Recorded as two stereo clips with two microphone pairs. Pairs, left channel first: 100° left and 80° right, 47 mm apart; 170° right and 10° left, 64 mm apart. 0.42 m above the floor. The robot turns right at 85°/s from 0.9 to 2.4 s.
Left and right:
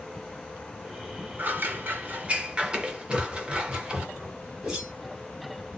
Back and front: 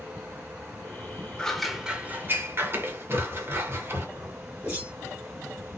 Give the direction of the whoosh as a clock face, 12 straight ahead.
12 o'clock.